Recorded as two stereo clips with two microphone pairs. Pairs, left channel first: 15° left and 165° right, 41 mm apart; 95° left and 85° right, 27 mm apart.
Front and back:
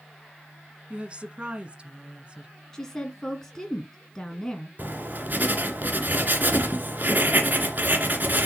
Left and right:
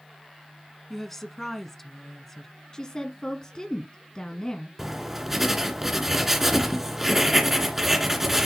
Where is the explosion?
I don't hear an explosion.